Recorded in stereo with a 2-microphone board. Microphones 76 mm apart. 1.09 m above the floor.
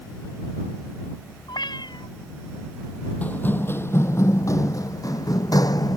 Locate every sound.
1.5 s a cat meowing: 80° left
3.2 s running footsteps: 20° left (ahead or behind); by 6.0 s 60° left (ahead or behind)